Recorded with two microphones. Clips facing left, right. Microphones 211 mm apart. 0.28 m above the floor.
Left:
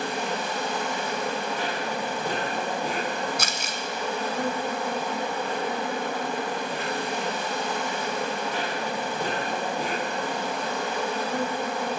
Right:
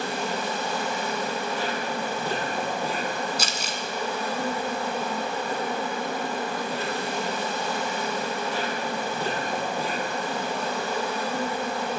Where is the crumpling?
60° left (ahead or behind), 1.8 m.